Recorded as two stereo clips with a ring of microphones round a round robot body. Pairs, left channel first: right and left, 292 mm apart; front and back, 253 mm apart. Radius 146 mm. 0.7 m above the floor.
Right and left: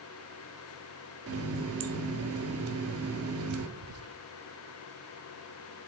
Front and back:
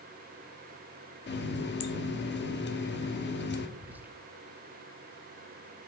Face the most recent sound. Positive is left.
turn(degrees=100)